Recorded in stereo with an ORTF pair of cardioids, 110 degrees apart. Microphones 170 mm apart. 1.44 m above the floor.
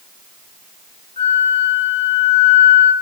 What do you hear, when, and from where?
1.2 s a flute: 35° left, 2 m